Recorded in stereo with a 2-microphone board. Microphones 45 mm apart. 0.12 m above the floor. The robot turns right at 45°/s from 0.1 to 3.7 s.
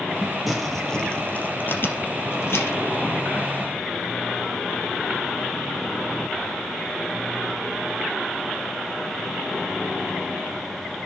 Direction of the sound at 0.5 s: 5° right (ahead or behind).